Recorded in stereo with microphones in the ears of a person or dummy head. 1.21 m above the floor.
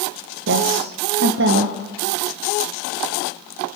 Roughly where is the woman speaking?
Right.